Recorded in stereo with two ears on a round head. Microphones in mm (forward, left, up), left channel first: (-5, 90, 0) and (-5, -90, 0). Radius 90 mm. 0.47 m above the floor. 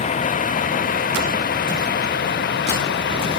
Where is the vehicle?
35° left (ahead or behind); by 3.4 s 60° left (ahead or behind).